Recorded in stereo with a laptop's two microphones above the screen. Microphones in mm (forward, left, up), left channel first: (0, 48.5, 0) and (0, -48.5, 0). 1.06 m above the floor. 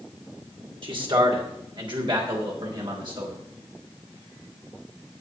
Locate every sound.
0.8 s a man speaking: 60° right (ahead or behind), 2.5 m; by 3.4 s 55° right (ahead or behind), 4 m